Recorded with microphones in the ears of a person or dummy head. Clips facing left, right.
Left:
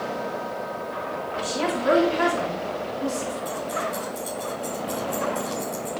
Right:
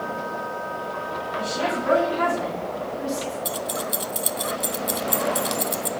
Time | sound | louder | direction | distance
1.4 | a woman speaking | even | 40° left (ahead or behind) | 3.5 m
3.5 | keys jangling | even | 45° right (ahead or behind) | 0.7 m